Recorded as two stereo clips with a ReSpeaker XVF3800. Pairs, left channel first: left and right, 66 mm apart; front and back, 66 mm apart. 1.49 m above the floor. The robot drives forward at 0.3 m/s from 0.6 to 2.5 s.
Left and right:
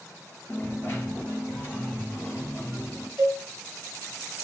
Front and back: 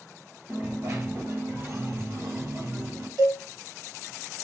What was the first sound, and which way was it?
A dropped coin, 135° left.